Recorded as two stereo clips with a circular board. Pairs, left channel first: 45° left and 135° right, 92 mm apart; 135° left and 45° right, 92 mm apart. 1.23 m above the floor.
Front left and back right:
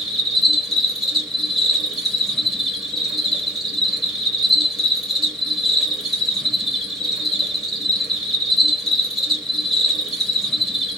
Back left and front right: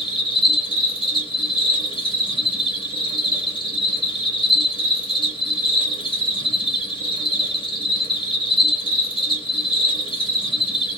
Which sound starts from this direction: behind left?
An insect, at 0.0 s.